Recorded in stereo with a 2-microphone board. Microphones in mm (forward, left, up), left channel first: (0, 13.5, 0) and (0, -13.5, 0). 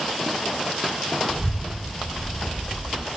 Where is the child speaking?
60° right (ahead or behind), 4.5 m.